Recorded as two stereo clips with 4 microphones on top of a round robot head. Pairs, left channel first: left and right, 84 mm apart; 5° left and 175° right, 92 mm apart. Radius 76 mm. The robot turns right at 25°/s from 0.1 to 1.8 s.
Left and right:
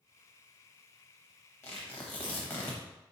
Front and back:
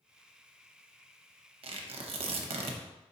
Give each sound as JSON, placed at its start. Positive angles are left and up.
{"t": 1.6, "sound": "tearing paper", "azimuth_deg": 160, "distance_m": 0.6}